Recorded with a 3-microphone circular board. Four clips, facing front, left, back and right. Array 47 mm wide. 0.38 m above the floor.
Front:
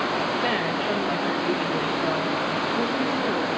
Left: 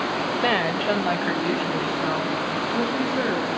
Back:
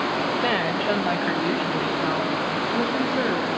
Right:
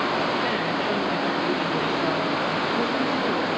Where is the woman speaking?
105° left, 1.1 m; by 3.5 s 145° left, 4.5 m.